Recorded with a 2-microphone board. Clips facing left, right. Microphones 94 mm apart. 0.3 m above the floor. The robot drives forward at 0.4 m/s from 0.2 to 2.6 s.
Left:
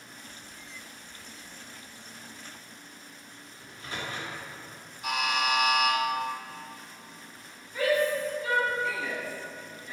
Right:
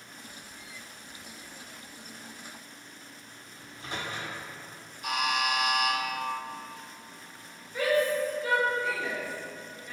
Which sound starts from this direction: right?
A microwave, at 3.6 s.